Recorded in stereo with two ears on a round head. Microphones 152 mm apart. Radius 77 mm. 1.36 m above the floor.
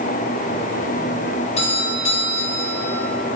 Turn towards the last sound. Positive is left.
turn(degrees=40)  # may be behind; listen again after turning